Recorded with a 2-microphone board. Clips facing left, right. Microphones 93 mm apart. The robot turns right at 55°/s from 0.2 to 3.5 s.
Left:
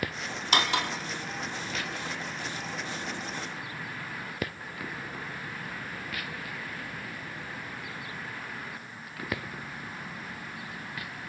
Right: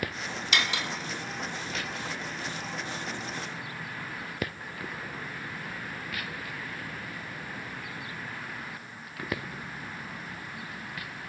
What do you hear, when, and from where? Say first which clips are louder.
0.5 s cutlery clinking: left 4 dB; 40° left (ahead or behind), 1.1 m; by 0.9 s 60° left (ahead or behind), 1.1 m